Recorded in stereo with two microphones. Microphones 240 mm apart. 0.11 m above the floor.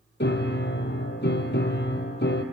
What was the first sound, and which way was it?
A piano, 50° left (ahead or behind).